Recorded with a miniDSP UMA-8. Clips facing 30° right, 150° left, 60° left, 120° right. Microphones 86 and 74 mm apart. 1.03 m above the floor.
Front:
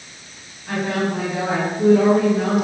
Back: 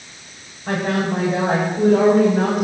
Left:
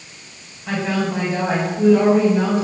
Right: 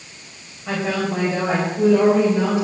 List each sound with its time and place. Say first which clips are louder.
0.7 s a woman speaking: back 1 dB, left 1 dB; 165° left, 5.5 m; by 2.6 s 160° left, 4 m